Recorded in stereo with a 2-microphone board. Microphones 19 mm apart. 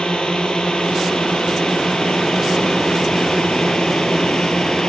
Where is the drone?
65° left (ahead or behind); by 4.9 s 55° left (ahead or behind).